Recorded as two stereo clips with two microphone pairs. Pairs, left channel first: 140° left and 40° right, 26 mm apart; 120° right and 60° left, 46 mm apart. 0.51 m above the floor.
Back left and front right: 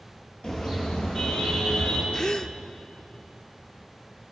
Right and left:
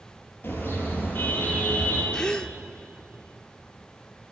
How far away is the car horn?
About 7 m.